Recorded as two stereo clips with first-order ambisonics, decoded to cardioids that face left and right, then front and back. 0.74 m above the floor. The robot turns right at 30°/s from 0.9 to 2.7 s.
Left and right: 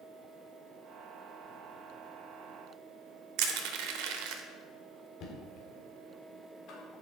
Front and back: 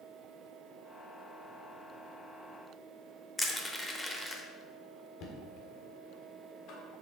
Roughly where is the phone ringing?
No phone ringing in this recording.